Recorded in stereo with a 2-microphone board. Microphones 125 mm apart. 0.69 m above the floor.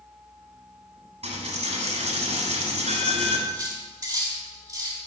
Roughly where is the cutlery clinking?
Right.